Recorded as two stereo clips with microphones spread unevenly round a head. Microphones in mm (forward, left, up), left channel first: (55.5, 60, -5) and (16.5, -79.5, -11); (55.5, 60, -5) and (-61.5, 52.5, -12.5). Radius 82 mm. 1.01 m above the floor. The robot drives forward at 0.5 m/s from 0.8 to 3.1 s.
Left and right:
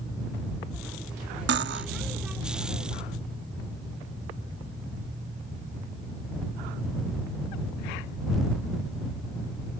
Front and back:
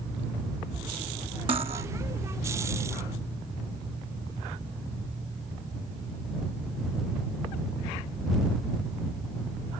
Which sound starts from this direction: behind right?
Cutlery clinking, at 1.5 s.